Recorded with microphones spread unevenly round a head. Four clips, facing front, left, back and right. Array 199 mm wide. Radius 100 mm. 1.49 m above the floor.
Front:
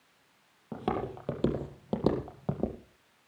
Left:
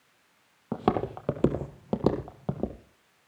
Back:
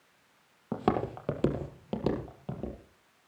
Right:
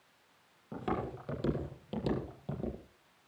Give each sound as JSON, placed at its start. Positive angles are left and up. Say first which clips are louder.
{"t": 0.7, "sound": "footsteps", "louder": "left 9 dB, back 4 dB", "azimuth_deg": 115, "distance_m": 2.5}